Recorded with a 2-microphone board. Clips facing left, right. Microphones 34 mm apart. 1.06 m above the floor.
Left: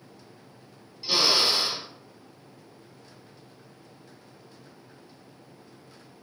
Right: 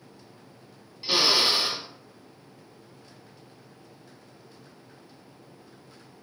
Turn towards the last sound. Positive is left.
turn(degrees=-25)  # may be behind; listen again after turning